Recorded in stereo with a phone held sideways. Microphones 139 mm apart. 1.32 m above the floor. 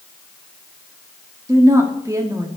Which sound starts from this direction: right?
A woman speaking, at 1.5 s.